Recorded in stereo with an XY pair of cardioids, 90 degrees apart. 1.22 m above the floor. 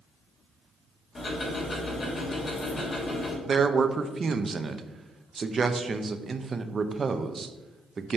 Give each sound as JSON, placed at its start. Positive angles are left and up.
{"t": 1.1, "sound": "ticking", "azimuth_deg": 45, "distance_m": 3.0}
{"t": 3.5, "sound": "a man speaking", "azimuth_deg": -40, "distance_m": 0.7}